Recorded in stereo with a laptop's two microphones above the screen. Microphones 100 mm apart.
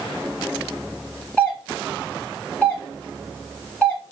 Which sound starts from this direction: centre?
A doorbell, at 1.4 s.